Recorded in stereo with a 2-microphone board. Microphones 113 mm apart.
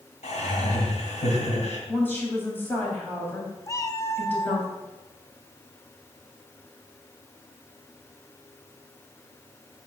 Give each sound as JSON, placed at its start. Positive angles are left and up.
{"t": 0.2, "sound": "laughter", "side_deg": 80, "distance_m": 3.0}
{"t": 1.9, "sound": "a woman speaking", "side_deg": 15, "distance_m": 3.5}
{"t": 3.7, "sound": "a cat meowing", "side_deg": 25, "distance_m": 0.7}